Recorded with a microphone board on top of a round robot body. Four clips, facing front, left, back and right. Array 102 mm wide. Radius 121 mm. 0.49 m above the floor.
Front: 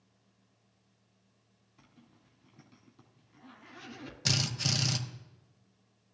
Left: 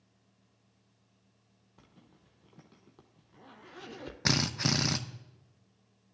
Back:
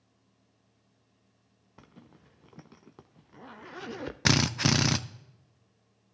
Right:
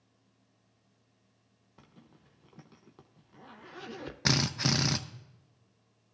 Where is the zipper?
175° right, 0.7 m.